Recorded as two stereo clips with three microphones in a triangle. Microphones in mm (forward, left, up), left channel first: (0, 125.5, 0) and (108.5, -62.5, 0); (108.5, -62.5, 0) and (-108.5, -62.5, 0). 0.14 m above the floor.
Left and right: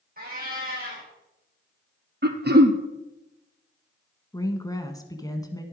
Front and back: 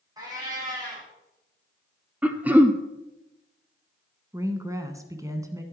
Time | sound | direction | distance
0.2 | a cat meowing | 105° right | 6 m
2.2 | throat clearing | 95° right | 0.9 m
4.3 | a woman speaking | 145° left | 1.0 m